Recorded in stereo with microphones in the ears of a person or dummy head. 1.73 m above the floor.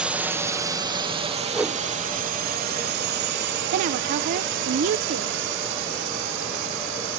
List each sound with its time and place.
0.0 s a drone: centre (ahead or behind); by 7.2 s 65° right (ahead or behind)
1.5 s a whoosh: 5° right (ahead or behind)
3.7 s a woman speaking: 40° right (ahead or behind)